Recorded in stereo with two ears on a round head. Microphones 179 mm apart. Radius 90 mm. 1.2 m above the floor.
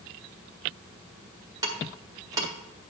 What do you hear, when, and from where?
1.6 s ticking: 20° right (ahead or behind), 1.6 m